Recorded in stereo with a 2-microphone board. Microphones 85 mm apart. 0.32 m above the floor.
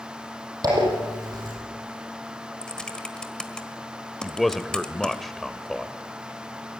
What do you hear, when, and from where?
0.6 s a zipper: 50° right (ahead or behind), 8 m
2.6 s typing on a keyboard: 10° left (ahead or behind), 1.6 m
4.2 s a man speaking: 5° left (ahead or behind), 0.9 m